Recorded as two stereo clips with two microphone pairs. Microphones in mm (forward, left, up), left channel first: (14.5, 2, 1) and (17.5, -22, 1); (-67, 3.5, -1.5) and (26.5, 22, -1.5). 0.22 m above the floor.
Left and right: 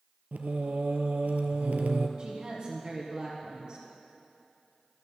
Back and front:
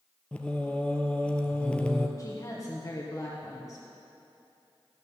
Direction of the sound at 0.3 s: 95° right.